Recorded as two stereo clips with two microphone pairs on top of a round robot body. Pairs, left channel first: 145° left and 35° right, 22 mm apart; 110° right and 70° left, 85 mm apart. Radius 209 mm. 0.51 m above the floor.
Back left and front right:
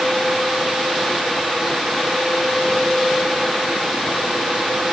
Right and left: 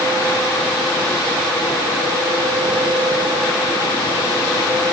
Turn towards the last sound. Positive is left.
No sound to turn to.